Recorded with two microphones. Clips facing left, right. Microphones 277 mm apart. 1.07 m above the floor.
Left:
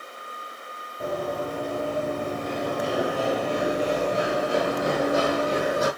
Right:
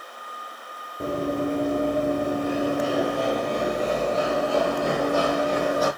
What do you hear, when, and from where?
1.0 s running footsteps: 30° right (ahead or behind), 1.2 m; by 5.9 s 25° left (ahead or behind), 2 m